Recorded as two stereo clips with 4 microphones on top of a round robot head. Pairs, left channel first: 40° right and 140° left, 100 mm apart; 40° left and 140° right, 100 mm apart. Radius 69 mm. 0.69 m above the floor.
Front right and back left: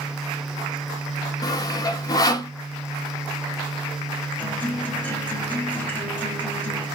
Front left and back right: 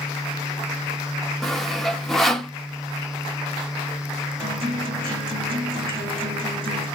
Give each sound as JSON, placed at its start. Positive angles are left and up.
{"t": 1.4, "sound": "sawing", "azimuth_deg": -45, "distance_m": 0.8}
{"t": 4.4, "sound": "a guitar", "azimuth_deg": -115, "distance_m": 2.5}